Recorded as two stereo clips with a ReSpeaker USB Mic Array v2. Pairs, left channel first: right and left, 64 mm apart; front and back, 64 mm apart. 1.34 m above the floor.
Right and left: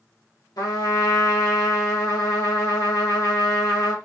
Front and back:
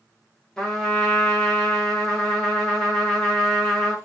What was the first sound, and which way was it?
A trumpet, 75° right.